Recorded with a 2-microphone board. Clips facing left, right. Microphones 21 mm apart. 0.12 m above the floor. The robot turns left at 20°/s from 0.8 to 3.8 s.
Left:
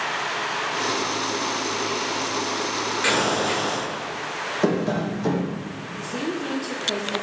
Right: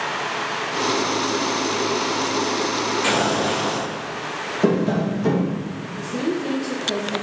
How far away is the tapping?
About 1.6 m.